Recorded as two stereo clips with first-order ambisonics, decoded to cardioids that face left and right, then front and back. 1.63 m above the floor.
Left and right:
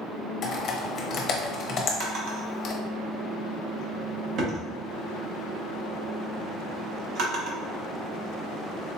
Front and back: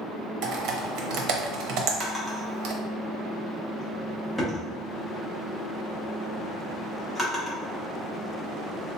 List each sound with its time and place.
0.4 s typing on a keyboard: 150° left, 0.7 m
2.0 s a drawer: 90° right, 0.9 m